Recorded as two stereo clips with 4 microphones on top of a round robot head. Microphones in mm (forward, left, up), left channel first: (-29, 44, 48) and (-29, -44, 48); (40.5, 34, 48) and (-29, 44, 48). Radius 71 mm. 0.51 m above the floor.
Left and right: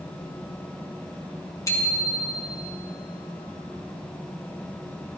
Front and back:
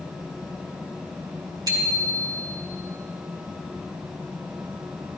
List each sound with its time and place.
1.7 s a bicycle bell: 145° left, 4 m